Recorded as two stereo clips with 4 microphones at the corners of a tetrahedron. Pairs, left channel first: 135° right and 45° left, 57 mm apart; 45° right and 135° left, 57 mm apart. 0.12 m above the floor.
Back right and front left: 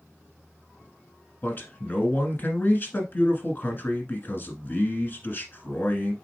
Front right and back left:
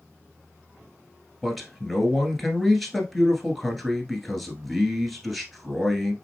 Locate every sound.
1.4 s a man speaking: 135° right, 1.4 m